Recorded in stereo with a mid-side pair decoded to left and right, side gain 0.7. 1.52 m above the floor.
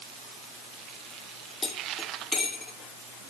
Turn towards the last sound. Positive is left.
turn(degrees=20)